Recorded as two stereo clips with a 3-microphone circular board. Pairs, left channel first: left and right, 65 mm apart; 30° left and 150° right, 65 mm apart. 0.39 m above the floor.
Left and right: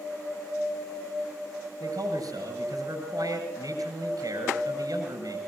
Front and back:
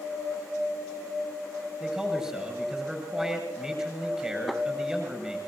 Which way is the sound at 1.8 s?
70° right.